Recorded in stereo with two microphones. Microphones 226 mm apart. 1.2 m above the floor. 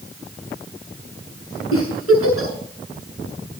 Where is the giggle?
80° left, 7 m.